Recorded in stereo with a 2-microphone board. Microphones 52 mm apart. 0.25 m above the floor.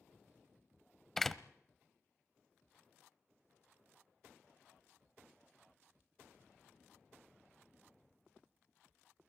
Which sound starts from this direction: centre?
A door slam, at 1.2 s.